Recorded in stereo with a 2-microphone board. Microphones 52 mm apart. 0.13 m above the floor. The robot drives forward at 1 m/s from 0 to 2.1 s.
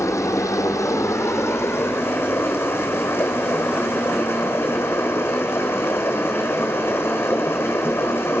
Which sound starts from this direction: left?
Running water, at 0.0 s.